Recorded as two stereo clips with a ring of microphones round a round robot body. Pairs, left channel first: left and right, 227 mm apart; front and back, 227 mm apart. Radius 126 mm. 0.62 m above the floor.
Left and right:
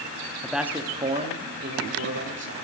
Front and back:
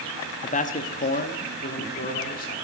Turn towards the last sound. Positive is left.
turn(degrees=-55)